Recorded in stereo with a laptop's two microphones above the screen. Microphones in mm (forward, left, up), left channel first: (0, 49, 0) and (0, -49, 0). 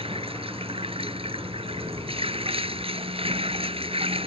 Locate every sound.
0.0 s running water: 75° right (ahead or behind)